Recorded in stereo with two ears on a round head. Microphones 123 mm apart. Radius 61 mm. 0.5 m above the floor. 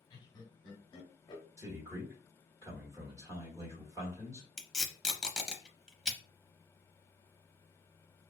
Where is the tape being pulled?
5° right (ahead or behind), 0.6 m.